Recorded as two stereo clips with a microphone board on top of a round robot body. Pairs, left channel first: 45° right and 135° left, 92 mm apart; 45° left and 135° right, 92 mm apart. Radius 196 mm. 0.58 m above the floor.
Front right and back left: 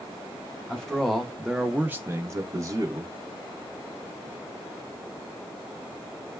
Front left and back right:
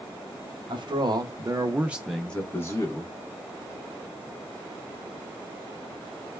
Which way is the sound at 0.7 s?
125° right.